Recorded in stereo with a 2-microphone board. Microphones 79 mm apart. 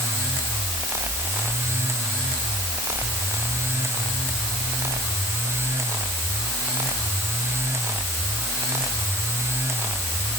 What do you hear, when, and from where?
Only background noise.